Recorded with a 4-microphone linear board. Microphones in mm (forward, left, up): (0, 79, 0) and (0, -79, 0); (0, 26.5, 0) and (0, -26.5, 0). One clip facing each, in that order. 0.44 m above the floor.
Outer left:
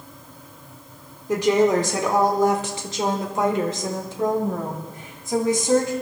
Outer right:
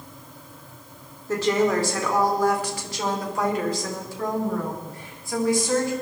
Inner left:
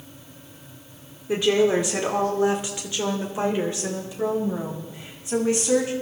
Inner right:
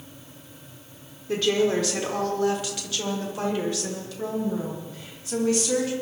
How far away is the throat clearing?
I don't hear throat clearing.